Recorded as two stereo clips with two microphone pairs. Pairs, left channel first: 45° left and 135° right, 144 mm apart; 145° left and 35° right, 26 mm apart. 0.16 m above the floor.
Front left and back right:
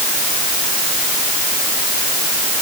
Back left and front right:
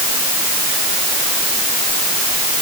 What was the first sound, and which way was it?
Only background noise.